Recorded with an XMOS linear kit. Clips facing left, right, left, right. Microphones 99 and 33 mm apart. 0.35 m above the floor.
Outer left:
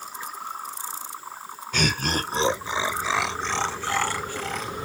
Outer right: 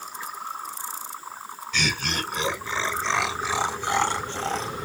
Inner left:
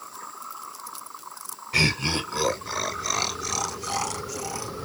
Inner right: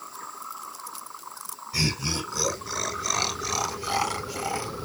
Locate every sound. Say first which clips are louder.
1.7 s laughter: outer left 3 dB, inner left 5 dB; 45° left (ahead or behind), 1.1 m; by 4.7 s 30° right (ahead or behind), 1.6 m